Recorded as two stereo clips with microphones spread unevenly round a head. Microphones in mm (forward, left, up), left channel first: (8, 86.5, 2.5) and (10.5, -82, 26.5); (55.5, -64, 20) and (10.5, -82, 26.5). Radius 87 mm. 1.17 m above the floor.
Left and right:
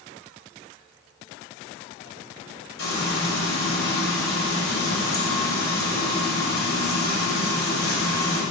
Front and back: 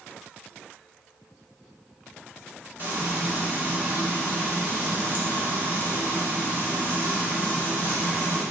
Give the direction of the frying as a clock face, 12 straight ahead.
9 o'clock.